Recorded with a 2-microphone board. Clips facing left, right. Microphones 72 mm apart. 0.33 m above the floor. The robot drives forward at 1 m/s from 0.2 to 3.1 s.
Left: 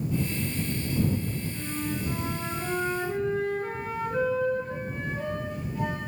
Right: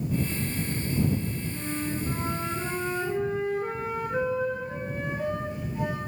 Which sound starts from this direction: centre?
A flute, at 1.5 s.